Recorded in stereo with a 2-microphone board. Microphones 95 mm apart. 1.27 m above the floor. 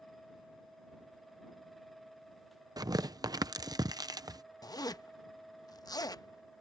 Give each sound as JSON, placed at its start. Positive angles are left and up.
{"t": 2.8, "sound": "tearing paper", "side_deg": -40}
{"t": 4.6, "sound": "a zipper", "side_deg": 40}